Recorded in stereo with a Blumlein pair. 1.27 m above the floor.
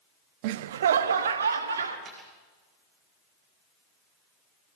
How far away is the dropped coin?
About 5 m.